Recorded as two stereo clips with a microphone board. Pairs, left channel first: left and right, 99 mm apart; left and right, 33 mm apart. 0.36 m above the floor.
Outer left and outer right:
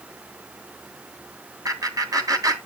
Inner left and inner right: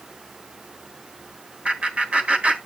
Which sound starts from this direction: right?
Laughter, at 1.6 s.